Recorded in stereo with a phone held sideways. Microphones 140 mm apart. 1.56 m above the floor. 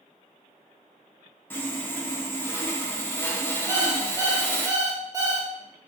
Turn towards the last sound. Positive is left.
turn(degrees=-25)  # may be behind; listen again after turning